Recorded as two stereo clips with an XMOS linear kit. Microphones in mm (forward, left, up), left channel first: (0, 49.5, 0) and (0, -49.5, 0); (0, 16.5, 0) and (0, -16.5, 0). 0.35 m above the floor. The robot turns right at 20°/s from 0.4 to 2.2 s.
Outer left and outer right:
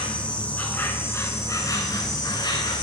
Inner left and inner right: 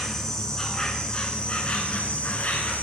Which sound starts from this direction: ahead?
An insect, at 0.0 s.